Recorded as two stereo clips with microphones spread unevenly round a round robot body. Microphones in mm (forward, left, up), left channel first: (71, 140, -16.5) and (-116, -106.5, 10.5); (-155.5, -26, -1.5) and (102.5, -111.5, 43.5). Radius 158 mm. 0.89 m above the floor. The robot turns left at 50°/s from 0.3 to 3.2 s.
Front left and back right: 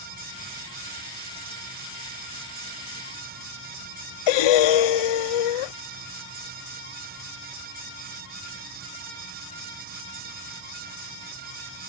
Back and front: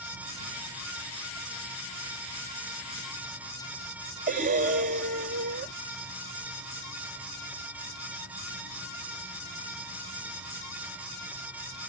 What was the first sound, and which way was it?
Breathing, 50° left.